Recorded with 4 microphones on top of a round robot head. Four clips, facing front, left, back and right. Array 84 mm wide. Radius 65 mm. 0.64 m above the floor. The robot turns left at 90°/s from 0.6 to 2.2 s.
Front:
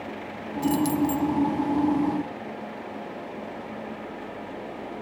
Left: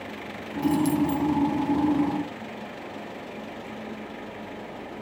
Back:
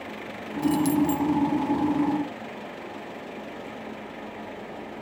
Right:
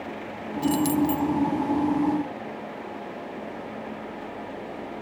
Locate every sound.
0.6 s keys jangling: 70° right, 0.9 m; by 1.3 s 130° right, 0.9 m